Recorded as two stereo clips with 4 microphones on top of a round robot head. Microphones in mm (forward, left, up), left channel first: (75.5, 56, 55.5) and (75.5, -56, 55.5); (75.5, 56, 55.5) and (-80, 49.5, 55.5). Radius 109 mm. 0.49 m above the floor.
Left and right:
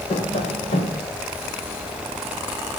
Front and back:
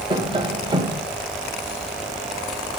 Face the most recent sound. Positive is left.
turn(degrees=125)